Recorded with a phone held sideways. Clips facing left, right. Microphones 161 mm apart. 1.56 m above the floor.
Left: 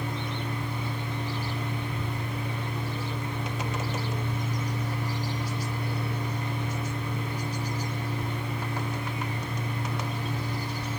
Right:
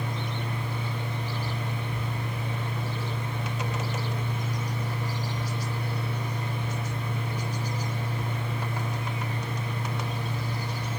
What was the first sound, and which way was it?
A fan, 50° right (ahead or behind).